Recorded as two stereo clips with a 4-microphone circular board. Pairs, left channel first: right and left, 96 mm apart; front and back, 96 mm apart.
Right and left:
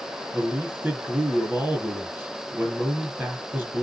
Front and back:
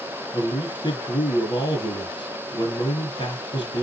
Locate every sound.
0.3 s a man speaking: 20° left, 2.5 m